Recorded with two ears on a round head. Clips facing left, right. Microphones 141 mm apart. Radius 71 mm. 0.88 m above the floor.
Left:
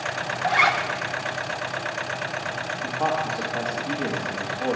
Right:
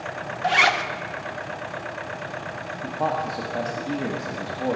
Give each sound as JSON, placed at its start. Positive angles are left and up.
{"t": 0.4, "sound": "a zipper", "side_deg": -35, "distance_m": 0.6}
{"t": 2.8, "sound": "a man speaking", "side_deg": -20, "distance_m": 1.4}